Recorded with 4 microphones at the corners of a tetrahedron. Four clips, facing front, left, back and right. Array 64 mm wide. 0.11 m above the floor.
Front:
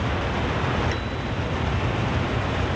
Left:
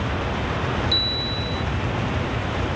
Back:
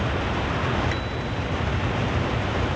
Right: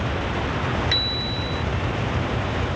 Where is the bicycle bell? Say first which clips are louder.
Even, even; 100° right.